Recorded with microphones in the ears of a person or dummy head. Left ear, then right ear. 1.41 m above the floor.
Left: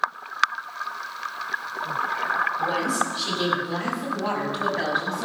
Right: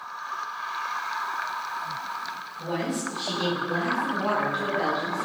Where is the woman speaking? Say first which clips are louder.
Left 6 dB; 40° left (ahead or behind), 7 m; by 5.2 s 25° left (ahead or behind), 9 m.